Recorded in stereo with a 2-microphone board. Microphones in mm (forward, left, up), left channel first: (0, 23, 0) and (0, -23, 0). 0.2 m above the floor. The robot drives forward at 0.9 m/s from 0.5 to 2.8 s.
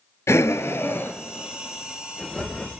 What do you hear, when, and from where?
0.3 s breathing: 90° left, 0.6 m; by 2.7 s 15° left (ahead or behind), 2 m